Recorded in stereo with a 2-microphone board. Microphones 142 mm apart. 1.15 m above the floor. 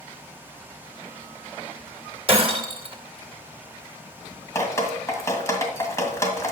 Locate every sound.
2.3 s breaking glass: 40° right (ahead or behind), 1.7 m
4.5 s dripping: 20° left (ahead or behind), 1.9 m